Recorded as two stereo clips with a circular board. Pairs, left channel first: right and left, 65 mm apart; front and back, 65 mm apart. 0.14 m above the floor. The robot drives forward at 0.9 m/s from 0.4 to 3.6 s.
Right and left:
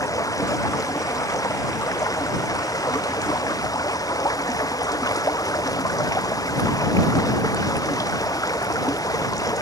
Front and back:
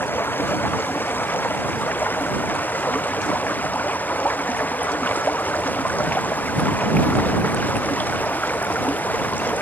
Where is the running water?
60° right; by 9.6 s 65° right.